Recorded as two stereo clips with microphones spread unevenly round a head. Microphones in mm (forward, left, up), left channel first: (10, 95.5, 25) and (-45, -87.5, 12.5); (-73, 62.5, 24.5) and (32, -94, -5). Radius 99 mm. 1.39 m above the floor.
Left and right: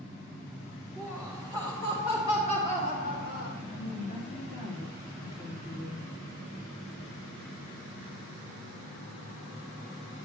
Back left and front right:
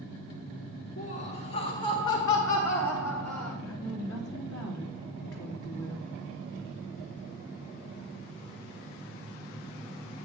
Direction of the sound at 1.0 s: 160° left.